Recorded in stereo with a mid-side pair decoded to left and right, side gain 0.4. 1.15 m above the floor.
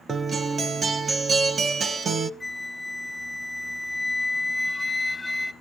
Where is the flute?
15° left, 0.7 m.